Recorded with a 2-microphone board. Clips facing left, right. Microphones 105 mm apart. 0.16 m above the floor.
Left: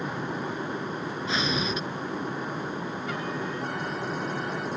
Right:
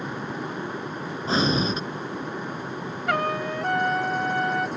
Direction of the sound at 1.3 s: 35° right (ahead or behind).